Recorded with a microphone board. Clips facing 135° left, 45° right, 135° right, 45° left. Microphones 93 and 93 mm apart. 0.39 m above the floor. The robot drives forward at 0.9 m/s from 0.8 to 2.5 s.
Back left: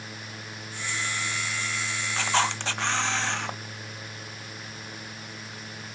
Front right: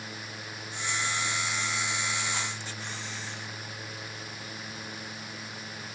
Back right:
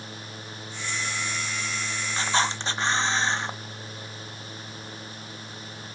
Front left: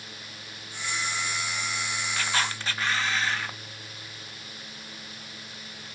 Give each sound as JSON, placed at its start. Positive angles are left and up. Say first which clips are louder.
{"t": 2.2, "sound": "a camera shutter", "louder": "back left 9 dB, back right 5 dB", "azimuth_deg": 160}